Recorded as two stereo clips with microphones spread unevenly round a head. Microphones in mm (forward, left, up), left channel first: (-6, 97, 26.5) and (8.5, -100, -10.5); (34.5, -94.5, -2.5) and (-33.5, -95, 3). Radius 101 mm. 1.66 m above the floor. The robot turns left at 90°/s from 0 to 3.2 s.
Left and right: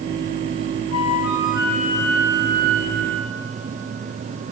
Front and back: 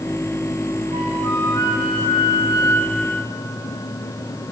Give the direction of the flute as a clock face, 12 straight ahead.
8 o'clock.